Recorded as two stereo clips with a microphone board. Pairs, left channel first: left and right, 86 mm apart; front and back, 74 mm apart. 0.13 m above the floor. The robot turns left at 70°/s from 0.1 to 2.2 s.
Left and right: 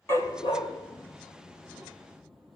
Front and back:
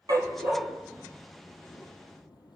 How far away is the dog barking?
About 1.2 m.